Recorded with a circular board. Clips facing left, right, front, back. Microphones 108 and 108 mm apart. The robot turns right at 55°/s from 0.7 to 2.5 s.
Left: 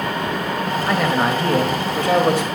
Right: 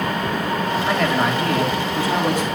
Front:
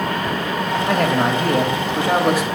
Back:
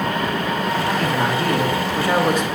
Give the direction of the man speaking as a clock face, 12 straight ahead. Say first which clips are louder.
Left 2 dB, front 5 dB; 12 o'clock.